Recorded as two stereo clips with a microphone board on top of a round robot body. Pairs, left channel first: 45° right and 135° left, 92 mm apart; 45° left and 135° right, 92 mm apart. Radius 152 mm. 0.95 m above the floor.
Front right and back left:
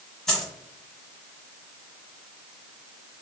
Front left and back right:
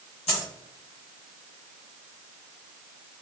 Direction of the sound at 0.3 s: 40° left.